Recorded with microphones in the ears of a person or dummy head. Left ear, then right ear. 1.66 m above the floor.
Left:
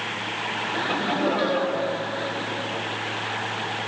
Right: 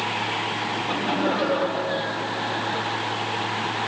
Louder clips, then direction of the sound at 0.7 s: Even; centre (ahead or behind).